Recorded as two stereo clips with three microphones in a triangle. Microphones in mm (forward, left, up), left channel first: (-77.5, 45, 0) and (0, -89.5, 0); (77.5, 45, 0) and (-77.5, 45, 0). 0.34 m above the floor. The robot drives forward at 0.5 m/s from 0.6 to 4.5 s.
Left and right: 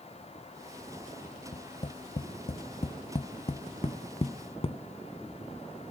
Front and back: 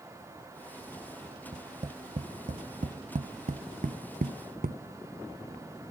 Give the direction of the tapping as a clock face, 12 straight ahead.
7 o'clock.